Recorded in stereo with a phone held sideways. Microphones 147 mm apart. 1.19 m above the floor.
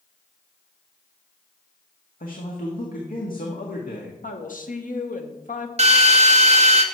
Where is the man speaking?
75° left (ahead or behind), 1.6 m.